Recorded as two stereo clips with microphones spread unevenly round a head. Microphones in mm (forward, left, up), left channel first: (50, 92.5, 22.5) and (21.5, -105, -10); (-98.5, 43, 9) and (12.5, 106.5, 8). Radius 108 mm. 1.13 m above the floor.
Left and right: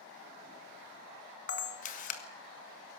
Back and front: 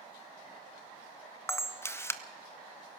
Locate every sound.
1.5 s a camera shutter: 140° left, 1.7 m